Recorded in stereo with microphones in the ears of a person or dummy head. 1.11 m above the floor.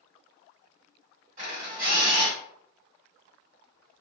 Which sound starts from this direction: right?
A camera shutter, at 1.4 s.